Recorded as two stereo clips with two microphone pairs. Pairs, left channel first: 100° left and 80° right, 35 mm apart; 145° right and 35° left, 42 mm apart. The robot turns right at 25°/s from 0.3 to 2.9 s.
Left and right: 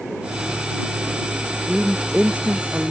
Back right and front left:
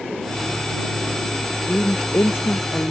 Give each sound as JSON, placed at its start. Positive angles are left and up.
{"t": 1.7, "sound": "a woman speaking", "azimuth_deg": -150}